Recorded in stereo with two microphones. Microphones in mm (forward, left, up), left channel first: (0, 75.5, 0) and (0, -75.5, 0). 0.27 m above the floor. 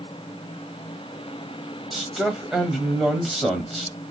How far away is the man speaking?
About 1.1 m.